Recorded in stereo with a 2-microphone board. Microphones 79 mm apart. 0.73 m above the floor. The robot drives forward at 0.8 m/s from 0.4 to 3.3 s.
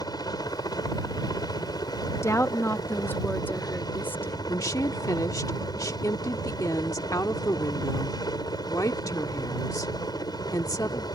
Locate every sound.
0.0 s a helicopter: 60° left (ahead or behind); by 11.2 s 65° left (ahead or behind)
2.1 s a woman speaking: 40° left (ahead or behind); by 4.4 s 25° left (ahead or behind)
4.5 s a woman speaking: 50° left (ahead or behind)